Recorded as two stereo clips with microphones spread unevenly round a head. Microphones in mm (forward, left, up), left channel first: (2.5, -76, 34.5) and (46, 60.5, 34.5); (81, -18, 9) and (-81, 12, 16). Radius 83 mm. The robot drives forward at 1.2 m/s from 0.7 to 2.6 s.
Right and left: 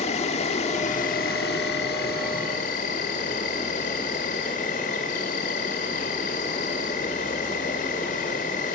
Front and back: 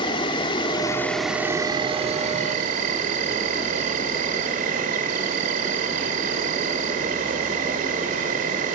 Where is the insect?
70° right, 1.4 m; by 8.8 s 150° right, 2.5 m.